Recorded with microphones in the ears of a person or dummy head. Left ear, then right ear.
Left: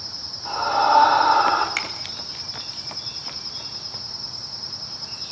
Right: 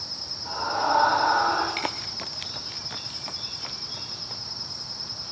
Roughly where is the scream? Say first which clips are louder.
Left 6 dB; left.